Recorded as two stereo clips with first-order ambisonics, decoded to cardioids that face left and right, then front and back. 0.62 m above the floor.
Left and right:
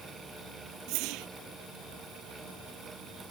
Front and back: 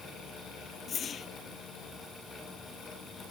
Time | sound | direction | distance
0.9 | a whoosh | 65° right | ?